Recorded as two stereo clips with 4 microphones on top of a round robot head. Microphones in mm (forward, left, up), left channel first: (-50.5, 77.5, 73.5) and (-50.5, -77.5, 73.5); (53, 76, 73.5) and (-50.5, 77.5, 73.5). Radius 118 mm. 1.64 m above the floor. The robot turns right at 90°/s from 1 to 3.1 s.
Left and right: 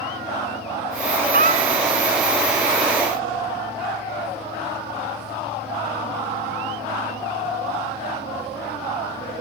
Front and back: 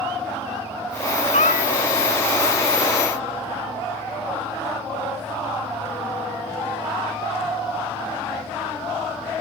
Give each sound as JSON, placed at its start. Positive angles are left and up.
{"t": 1.3, "sound": "a cat meowing", "azimuth_deg": -50}